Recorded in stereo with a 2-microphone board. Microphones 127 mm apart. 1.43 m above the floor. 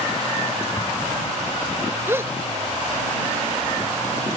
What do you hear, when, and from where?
0.8 s an explosion: 40° left (ahead or behind)
2.1 s a gasp: 20° right (ahead or behind)